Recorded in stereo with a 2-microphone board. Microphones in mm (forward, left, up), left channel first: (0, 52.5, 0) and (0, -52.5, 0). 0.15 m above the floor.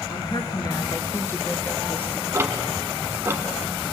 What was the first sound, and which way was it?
A woman speaking, 45° left (ahead or behind).